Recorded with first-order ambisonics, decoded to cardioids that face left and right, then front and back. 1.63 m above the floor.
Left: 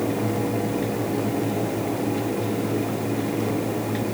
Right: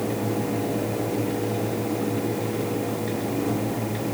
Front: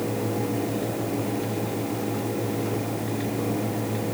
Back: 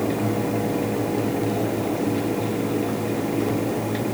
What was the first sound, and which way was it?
Only background noise.